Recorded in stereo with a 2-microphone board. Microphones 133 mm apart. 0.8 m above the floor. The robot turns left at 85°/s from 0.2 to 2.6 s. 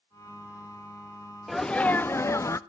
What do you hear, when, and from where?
1.5 s a sneeze: centre (ahead or behind), 0.6 m; by 2.6 s 20° left (ahead or behind), 0.6 m